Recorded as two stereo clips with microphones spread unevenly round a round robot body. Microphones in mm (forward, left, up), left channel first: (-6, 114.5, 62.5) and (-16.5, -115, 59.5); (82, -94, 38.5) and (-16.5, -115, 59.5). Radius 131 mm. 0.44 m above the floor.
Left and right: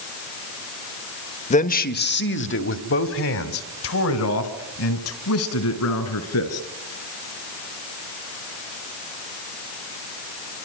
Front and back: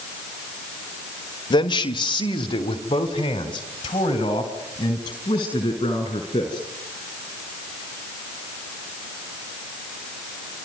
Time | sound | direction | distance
1.5 | a man speaking | 30° left | 1.3 m